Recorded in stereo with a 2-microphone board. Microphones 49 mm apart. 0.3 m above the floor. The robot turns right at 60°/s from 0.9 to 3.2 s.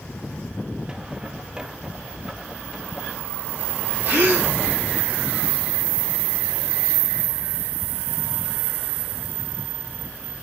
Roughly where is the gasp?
Right.